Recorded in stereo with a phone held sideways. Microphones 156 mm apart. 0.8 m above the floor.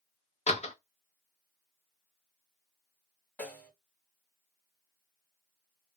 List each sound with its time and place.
0.5 s a door slam: 45° left (ahead or behind), 0.6 m
3.4 s a snare drum: 10° left (ahead or behind), 1.2 m